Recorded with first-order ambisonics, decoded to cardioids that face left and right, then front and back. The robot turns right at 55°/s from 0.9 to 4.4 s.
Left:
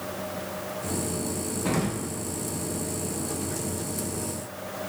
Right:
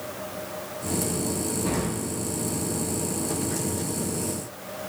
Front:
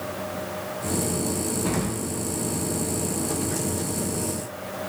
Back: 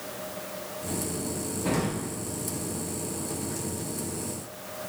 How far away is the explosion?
About 0.5 m.